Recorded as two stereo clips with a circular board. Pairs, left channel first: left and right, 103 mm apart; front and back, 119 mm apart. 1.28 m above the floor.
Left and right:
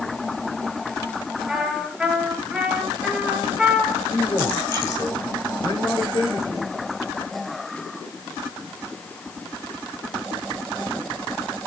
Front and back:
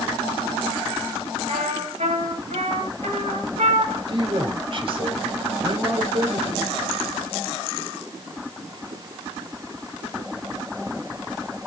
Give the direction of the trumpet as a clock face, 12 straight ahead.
6 o'clock.